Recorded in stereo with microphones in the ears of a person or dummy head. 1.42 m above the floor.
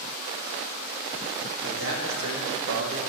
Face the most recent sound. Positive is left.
turn(degrees=-75)  # may be behind; listen again after turning